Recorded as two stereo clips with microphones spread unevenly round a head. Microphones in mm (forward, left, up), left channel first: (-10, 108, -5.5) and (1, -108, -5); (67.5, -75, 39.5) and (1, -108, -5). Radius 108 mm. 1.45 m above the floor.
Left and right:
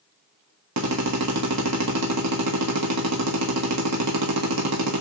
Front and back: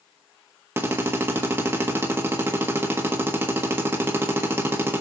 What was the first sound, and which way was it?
A drill, 80° right.